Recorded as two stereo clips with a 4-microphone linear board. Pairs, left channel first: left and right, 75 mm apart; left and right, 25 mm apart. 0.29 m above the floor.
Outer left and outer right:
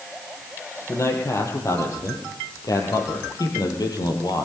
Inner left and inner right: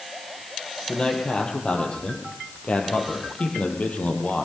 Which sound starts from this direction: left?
A man speaking, at 0.9 s.